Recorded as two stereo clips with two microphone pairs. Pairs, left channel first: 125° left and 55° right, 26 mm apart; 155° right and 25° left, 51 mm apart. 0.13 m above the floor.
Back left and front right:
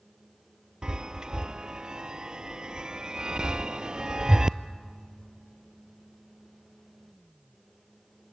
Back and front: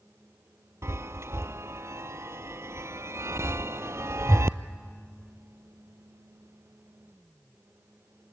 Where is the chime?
Straight ahead, 0.6 m.